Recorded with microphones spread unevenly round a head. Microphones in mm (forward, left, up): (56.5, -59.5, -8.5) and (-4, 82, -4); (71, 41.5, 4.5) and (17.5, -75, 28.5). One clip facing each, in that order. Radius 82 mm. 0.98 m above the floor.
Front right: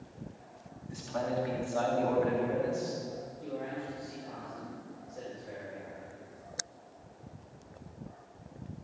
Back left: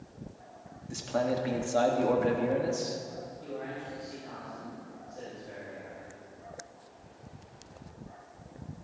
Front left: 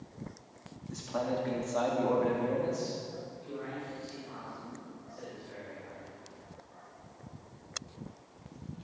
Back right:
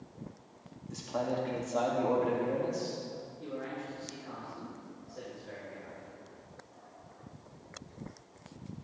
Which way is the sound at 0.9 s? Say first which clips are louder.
Back left 4 dB, even; 160° left.